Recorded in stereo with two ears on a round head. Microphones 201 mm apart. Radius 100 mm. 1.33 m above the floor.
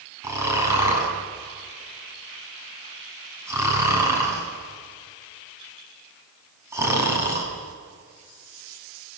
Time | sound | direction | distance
0.2 | snoring | 15° right (ahead or behind) | 7 m